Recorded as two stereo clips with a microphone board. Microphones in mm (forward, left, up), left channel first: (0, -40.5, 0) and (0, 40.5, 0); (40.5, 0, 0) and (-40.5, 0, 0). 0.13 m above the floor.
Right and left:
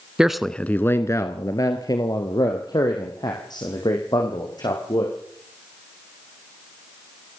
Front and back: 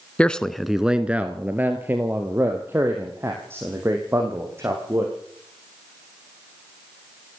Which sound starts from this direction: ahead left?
A man speaking, at 0.2 s.